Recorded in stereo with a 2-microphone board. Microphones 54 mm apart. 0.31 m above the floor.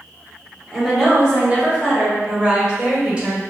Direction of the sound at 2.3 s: 20° right (ahead or behind).